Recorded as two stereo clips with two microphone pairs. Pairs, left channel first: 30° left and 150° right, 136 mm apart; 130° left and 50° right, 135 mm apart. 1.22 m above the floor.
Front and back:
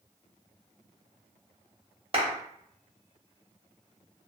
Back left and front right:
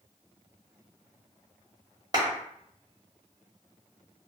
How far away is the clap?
About 1.0 m.